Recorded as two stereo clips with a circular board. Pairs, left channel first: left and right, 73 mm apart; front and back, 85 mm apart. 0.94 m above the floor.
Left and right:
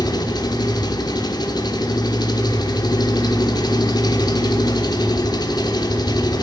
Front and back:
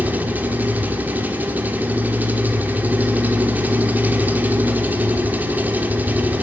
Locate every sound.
0.0 s an engine running: 110° left, 1.0 m